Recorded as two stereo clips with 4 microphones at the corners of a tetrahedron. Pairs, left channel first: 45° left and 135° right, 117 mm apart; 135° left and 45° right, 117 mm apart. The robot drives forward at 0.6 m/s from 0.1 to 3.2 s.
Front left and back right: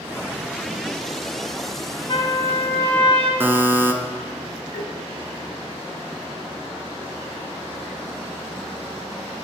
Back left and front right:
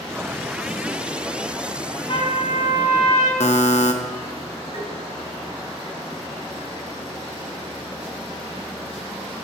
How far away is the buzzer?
About 0.8 m.